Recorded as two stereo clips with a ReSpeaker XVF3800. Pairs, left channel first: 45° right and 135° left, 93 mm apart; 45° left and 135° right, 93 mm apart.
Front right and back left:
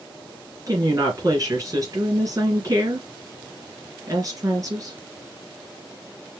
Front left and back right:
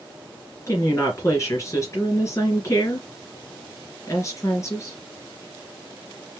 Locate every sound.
0.7 s a woman speaking: 95° left, 2.5 m